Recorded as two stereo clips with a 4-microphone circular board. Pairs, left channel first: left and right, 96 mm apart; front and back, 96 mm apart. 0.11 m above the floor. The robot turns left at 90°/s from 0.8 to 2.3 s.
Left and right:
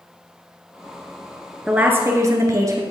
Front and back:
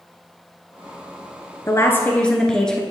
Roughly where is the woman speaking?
Ahead.